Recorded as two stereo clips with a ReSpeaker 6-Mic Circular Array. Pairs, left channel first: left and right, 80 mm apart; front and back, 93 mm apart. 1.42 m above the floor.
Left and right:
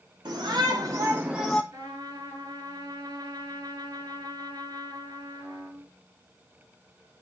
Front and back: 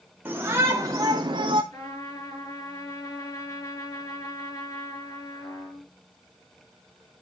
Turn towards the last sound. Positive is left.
turn(degrees=-50)